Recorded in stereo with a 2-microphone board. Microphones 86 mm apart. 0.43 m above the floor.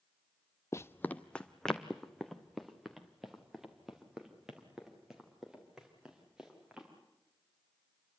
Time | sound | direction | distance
0.7 | running footsteps | 35° left (ahead or behind) | 0.6 m